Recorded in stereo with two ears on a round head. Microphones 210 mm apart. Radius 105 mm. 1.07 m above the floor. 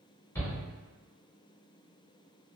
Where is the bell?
I don't hear a bell.